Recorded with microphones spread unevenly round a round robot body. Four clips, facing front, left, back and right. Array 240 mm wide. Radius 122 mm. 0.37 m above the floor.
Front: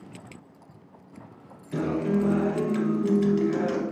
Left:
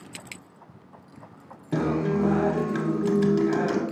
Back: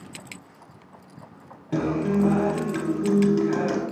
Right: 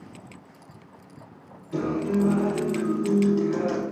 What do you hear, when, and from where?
1.7 s a guitar: 130° left, 0.6 m